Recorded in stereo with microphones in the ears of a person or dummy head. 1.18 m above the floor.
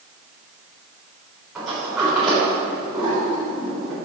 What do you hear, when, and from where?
1.6 s a sliding door: centre (ahead or behind), 3.5 m